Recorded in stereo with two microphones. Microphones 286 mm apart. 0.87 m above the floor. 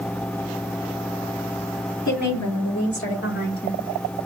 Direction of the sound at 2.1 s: 70° left (ahead or behind).